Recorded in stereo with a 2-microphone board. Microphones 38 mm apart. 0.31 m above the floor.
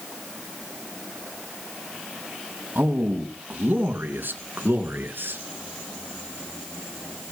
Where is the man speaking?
60° right (ahead or behind), 2.5 m; by 5.4 s 70° right (ahead or behind), 4.5 m.